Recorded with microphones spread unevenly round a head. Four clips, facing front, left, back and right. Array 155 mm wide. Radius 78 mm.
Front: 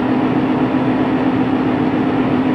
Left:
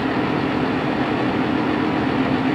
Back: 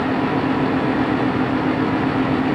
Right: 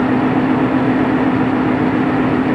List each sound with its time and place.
Only background noise.